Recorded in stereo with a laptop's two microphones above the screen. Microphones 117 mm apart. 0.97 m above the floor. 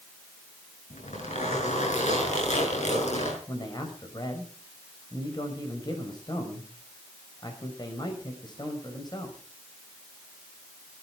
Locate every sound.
0.9 s a zipper: 80° left, 6.5 m
3.5 s a man speaking: 35° left (ahead or behind), 5.5 m